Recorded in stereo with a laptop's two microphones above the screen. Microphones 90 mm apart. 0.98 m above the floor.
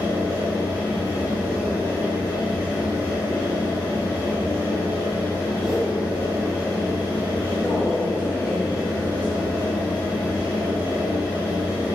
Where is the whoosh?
Centre (ahead or behind), 0.9 m.